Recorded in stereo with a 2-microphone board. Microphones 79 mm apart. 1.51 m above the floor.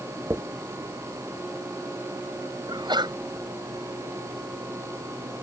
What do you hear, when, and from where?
0.3 s a dropped coin: 35° right (ahead or behind)
2.7 s a sneeze: 70° right (ahead or behind)